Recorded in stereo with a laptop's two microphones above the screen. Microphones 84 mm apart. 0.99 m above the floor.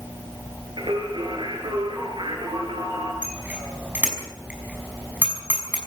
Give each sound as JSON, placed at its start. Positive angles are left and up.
{"t": 0.8, "sound": "singing", "side_deg": -75, "distance_m": 5.5}
{"t": 3.2, "sound": "a bicycle bell", "side_deg": -20, "distance_m": 5.5}